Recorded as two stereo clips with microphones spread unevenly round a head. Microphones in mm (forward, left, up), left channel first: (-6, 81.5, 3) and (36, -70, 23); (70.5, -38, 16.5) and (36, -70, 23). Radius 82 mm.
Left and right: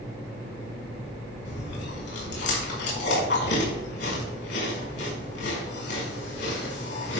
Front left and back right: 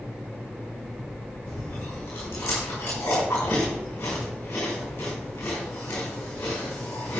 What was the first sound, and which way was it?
Chewing, 95° left.